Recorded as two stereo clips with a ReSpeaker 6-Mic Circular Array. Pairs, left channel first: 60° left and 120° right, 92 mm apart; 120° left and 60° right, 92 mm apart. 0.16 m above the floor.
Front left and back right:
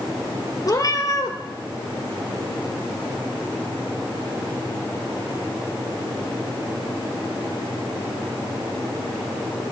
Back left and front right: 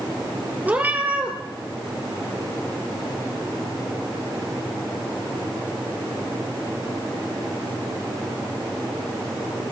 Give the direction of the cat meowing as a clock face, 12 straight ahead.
12 o'clock.